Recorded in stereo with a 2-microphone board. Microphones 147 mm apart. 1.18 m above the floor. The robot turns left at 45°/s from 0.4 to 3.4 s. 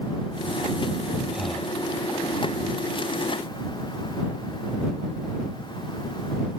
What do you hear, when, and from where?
1.3 s breathing: 5° right (ahead or behind); by 1.8 s 15° left (ahead or behind)